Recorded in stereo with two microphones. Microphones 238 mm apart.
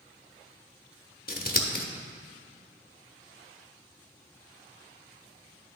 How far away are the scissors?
About 0.7 m.